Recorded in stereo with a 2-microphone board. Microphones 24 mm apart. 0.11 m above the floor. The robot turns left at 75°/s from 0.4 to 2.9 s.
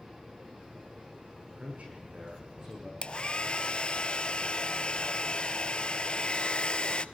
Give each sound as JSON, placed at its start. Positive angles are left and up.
{"t": 1.6, "sound": "a man speaking", "azimuth_deg": -70, "distance_m": 8.5}
{"t": 3.0, "sound": "a hair dryer", "side_deg": 45, "distance_m": 0.8}